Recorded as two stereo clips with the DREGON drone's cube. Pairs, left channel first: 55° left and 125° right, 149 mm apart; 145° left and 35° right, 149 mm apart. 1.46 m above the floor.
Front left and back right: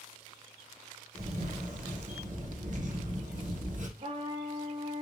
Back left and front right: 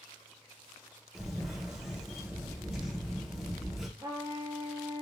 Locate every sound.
1.1 s a camera shutter: 125° right, 0.8 m
4.0 s a trumpet: 95° right, 0.8 m